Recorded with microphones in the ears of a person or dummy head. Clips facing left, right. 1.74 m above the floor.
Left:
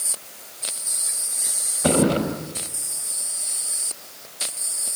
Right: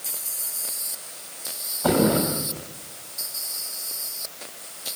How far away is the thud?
About 5.5 m.